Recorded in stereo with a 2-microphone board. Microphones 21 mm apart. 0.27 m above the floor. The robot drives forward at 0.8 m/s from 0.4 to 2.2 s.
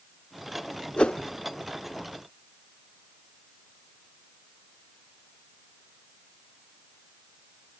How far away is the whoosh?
About 0.5 m.